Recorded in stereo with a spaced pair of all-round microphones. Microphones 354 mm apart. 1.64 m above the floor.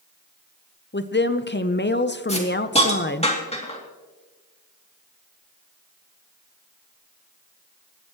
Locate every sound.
0.9 s a woman speaking: 30° left (ahead or behind), 0.7 m
2.3 s a hiss: 15° left (ahead or behind), 2.5 m